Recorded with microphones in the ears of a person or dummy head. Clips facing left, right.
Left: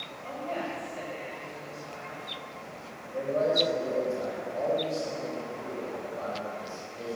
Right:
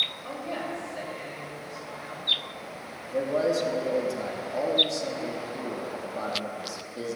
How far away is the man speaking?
About 3 m.